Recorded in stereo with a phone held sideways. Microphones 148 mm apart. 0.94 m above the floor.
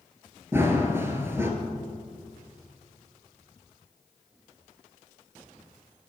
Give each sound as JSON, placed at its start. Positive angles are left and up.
{"t": 0.5, "sound": "running footsteps", "side_deg": -15, "distance_m": 0.9}